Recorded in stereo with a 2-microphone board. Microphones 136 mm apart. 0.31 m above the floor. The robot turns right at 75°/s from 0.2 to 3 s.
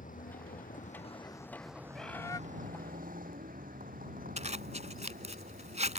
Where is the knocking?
I don't hear knocking.